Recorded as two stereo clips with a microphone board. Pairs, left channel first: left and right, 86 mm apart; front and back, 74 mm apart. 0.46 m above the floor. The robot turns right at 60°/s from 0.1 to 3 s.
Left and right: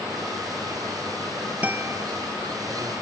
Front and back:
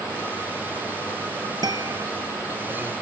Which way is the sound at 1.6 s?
165° right.